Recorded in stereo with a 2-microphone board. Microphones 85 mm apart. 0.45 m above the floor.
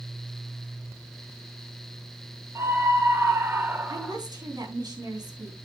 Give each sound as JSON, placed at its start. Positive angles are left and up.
{"t": 2.5, "sound": "a scream", "side_deg": -35, "distance_m": 2.5}
{"t": 3.9, "sound": "a woman speaking", "side_deg": -55, "distance_m": 4.0}